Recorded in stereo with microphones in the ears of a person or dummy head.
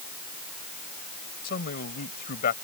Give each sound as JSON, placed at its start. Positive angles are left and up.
{"t": 1.4, "sound": "a man speaking", "side_deg": 50}